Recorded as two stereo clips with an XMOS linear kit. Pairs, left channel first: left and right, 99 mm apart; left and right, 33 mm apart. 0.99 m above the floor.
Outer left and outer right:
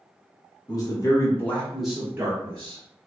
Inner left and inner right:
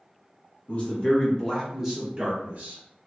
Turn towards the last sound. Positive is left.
turn(degrees=-45)  # may be behind; listen again after turning